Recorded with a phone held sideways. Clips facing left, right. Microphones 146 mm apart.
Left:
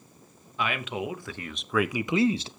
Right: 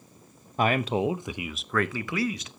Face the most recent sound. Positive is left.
turn(degrees=35)  # may be behind; listen again after turning